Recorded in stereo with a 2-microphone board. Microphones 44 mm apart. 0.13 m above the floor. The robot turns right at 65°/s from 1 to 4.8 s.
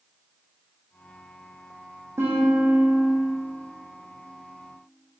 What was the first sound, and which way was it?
A guitar, 90° right.